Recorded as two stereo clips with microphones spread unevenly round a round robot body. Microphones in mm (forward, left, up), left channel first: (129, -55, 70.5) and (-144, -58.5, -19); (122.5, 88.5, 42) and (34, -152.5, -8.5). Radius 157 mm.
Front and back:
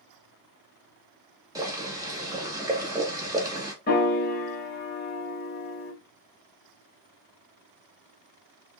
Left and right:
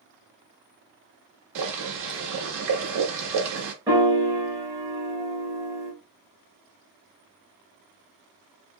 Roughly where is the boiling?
Right.